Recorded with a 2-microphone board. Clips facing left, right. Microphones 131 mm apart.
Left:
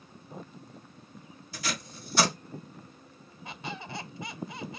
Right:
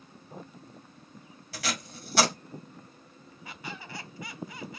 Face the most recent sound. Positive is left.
turn(degrees=25)  # may be behind; listen again after turning